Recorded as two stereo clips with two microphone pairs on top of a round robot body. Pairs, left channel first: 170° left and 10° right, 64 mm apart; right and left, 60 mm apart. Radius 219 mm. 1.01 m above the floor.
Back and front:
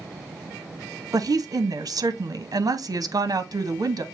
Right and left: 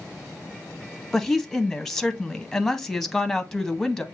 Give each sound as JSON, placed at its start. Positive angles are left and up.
{"t": 1.1, "sound": "a woman speaking", "azimuth_deg": -5, "distance_m": 0.9}